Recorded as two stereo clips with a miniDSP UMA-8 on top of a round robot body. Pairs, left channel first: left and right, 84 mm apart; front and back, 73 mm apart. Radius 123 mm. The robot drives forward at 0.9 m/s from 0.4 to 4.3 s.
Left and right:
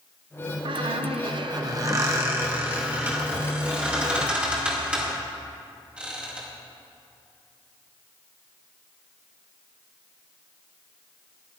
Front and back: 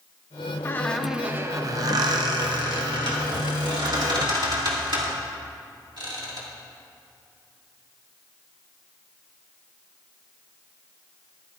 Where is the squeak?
60° right, 0.7 m; by 6.5 s 170° right, 3 m.